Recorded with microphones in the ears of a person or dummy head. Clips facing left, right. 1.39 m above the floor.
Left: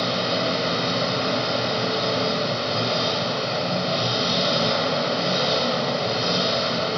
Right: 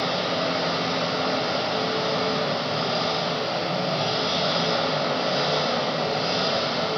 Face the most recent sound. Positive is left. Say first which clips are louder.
# left 1 dB
turn(degrees=40)  # may be behind; listen again after turning